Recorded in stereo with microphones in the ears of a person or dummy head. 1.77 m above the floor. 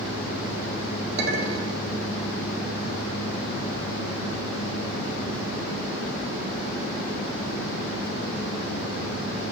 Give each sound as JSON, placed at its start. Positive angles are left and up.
{"t": 1.2, "sound": "a clink", "side_deg": -65, "distance_m": 3.0}